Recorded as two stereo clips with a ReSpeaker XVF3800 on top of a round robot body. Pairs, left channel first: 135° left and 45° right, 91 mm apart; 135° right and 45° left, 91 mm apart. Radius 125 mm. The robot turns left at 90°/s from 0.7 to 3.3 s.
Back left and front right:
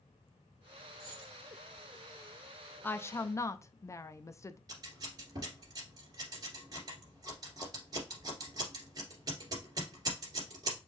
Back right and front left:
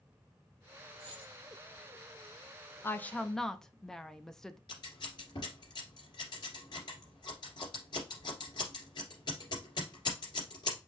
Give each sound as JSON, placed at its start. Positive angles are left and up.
{"t": 1.0, "sound": "a dropped coin", "azimuth_deg": 80, "distance_m": 2.5}
{"t": 2.8, "sound": "a woman speaking", "azimuth_deg": -175, "distance_m": 0.6}
{"t": 4.7, "sound": "scissors", "azimuth_deg": -95, "distance_m": 2.0}